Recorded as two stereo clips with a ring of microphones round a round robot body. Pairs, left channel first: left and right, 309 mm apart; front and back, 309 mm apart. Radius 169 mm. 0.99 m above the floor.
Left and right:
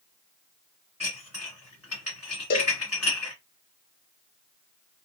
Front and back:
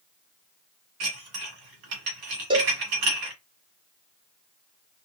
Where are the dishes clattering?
175° right, 1.8 m.